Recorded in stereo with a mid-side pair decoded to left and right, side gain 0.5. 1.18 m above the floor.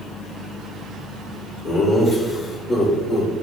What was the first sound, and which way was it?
Laughter, 60° left.